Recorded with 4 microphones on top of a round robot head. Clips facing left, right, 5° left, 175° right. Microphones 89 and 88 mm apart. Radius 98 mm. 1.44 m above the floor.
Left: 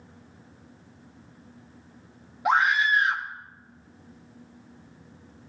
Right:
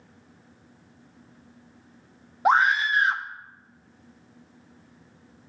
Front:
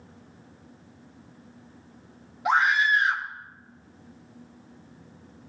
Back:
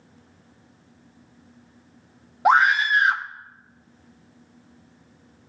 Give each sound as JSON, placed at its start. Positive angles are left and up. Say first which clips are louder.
{"t": 2.5, "sound": "a scream", "louder": "right 2 dB, back 4 dB", "azimuth_deg": -140, "distance_m": 0.6}